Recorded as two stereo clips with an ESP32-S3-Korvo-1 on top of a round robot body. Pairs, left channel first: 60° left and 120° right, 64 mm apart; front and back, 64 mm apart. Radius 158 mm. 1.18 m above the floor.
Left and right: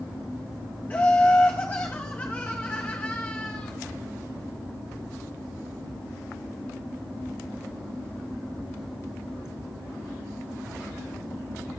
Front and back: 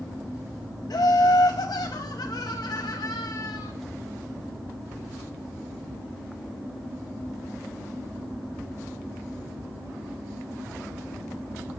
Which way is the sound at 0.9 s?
5° right.